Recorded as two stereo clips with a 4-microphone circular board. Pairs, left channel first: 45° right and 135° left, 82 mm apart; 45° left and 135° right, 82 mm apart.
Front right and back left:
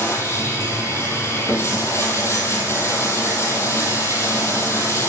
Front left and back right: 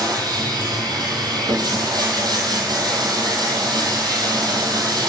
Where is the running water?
100° right, 1.7 m.